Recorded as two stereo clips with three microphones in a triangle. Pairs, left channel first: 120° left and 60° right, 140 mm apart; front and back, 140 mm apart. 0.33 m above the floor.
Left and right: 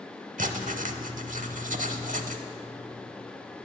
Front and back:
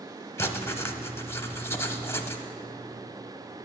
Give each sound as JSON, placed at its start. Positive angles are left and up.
{"t": 0.4, "sound": "writing", "azimuth_deg": -70, "distance_m": 0.6}